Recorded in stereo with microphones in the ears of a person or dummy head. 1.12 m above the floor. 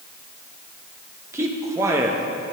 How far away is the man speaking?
About 0.7 m.